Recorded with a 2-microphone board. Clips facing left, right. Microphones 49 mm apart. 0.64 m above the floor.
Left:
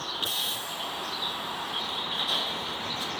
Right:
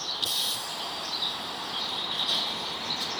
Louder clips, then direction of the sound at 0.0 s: Even; 25° left (ahead or behind).